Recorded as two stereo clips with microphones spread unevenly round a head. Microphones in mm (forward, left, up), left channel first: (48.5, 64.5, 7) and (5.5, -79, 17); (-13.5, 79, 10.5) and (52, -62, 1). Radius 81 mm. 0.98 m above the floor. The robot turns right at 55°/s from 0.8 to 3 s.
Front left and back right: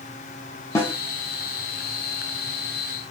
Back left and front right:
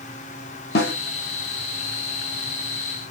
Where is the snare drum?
145° left, 0.6 m; by 0.9 s 155° left, 0.6 m.